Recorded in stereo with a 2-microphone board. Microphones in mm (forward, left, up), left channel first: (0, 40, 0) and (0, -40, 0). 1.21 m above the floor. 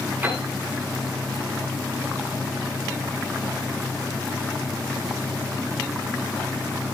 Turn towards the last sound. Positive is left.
turn(degrees=-25)  # may be behind; listen again after turning